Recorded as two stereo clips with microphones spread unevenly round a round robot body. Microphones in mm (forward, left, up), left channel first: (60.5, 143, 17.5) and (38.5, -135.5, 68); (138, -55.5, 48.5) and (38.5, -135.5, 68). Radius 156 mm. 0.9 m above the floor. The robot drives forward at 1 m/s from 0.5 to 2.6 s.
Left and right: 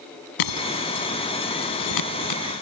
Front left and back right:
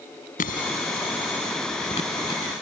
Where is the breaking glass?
85° left; by 2.4 s 115° left.